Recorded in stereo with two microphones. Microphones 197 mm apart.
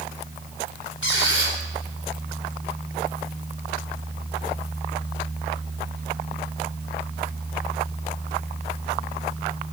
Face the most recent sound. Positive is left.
turn(degrees=80)